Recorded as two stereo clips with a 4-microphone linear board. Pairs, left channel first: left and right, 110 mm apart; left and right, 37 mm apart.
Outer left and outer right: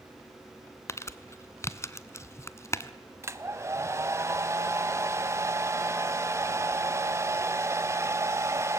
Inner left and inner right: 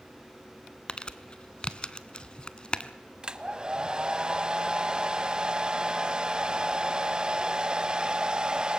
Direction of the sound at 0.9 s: 25° left (ahead or behind).